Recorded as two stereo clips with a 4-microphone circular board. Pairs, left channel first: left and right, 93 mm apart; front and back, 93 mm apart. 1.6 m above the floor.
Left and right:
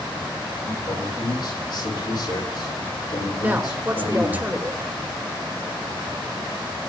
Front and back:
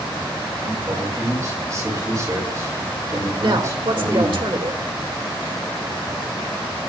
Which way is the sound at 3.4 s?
160° right.